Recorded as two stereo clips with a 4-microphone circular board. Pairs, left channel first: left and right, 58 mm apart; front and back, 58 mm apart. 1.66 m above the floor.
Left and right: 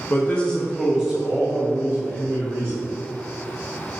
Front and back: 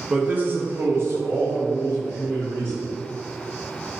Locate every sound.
0.1 s a man speaking: 115° left, 0.6 m; by 2.8 s 140° right, 1.9 m